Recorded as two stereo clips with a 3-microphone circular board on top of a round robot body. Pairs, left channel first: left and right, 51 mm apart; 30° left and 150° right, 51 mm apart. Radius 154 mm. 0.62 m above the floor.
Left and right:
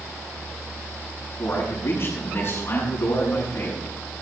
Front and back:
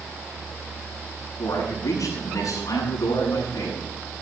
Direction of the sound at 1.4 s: 35° left.